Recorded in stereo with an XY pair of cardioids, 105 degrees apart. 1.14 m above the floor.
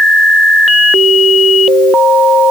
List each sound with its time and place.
Only background noise.